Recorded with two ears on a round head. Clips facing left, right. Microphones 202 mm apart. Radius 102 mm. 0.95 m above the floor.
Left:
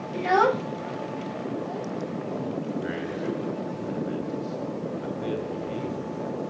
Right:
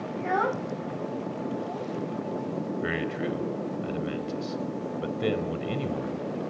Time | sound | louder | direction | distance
0.1 | a child speaking | left 6 dB | 40° left (ahead or behind) | 0.6 m
2.8 | a man speaking | even | 80° right | 4 m